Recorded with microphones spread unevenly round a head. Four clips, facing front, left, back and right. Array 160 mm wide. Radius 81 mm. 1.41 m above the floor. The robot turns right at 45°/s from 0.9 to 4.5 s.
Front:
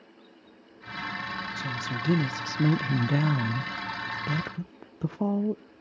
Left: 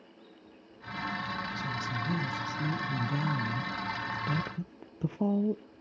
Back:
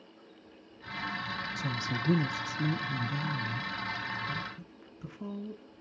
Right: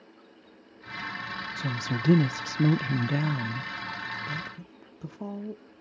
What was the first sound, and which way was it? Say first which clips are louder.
A woman speaking: right 3 dB, front 2 dB; 105° right.